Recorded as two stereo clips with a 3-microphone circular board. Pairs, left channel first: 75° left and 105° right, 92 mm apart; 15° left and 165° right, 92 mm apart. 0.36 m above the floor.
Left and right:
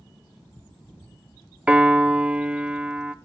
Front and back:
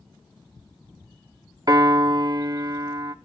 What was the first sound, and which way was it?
A piano, 170° right.